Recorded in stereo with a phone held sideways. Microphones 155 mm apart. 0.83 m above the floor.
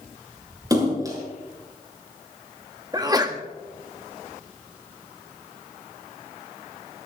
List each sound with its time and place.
0.7 s a splash: 25° right (ahead or behind), 5.5 m
2.9 s a sneeze: 25° right (ahead or behind), 1.6 m